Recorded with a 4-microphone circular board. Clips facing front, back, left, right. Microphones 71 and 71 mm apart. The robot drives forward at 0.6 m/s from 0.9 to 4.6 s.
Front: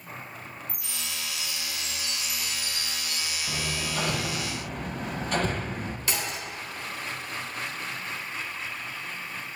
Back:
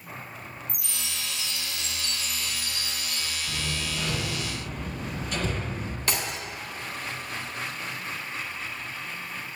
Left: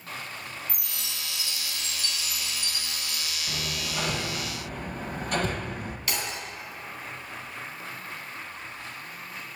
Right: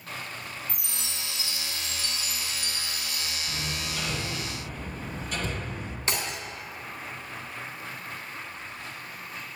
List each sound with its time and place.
0.7 s a chime: 155° right, 0.8 m; by 3.4 s 170° right, 2 m
3.5 s hammering: 30° left, 1.8 m; by 6.0 s 50° left, 1.3 m
6.1 s breaking glass: 150° right, 3 m